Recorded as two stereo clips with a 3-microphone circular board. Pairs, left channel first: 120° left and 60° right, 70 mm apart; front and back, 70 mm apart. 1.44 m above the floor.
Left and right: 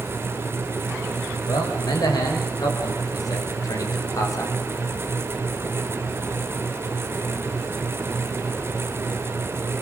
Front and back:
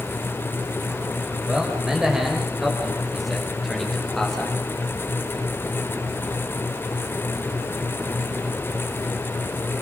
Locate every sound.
1.5 s a man speaking: 100° left, 5.5 m; by 4.6 s 85° left, 4.5 m